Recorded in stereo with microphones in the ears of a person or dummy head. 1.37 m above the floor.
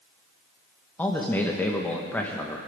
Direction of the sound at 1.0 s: 10° left (ahead or behind).